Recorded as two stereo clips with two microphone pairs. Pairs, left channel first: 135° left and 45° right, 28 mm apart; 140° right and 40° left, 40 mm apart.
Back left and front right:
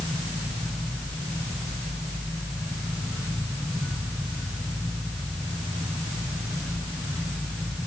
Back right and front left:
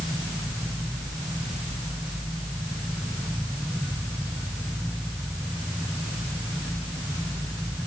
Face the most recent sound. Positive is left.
No sound to turn to.